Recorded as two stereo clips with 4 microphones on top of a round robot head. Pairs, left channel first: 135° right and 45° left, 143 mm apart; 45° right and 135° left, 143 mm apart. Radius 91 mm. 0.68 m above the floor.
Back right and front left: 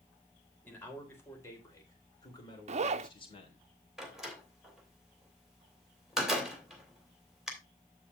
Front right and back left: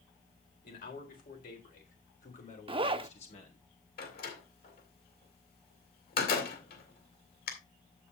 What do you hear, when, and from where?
0.6 s a man speaking: 60° right, 4 m; by 3.6 s 90° right, 3 m
2.7 s a zipper: 85° left, 0.5 m
4.0 s a door slam: 45° right, 3 m